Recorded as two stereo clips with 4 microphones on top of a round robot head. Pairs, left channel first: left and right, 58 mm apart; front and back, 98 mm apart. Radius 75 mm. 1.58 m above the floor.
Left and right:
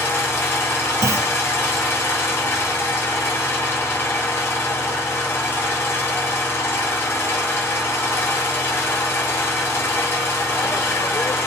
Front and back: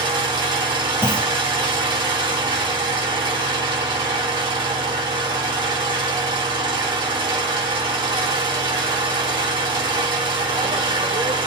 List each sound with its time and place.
0.0 s an engine running: 140° left, 6 m
1.0 s a clunk: 110° right, 1.3 m